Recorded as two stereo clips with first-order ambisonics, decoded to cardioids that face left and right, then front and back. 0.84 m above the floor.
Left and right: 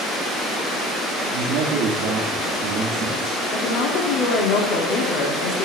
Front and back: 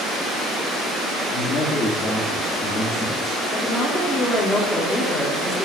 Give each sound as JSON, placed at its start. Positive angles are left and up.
{"t": 1.3, "sound": "a man speaking", "azimuth_deg": -55, "distance_m": 1.2}
{"t": 3.5, "sound": "a woman speaking", "azimuth_deg": 80, "distance_m": 1.8}